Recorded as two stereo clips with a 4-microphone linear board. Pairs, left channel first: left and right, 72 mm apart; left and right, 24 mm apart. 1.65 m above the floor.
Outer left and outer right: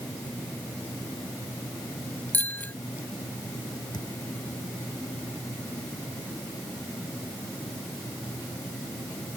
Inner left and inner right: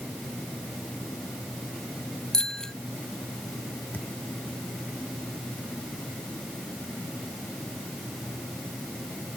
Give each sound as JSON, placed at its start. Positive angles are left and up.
{"t": 2.3, "sound": "a bicycle bell", "side_deg": 25}
{"t": 3.9, "sound": "a thud", "side_deg": 80}